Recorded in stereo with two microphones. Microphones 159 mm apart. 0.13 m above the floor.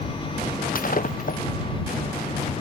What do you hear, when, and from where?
0.8 s breaking glass: 55° left (ahead or behind)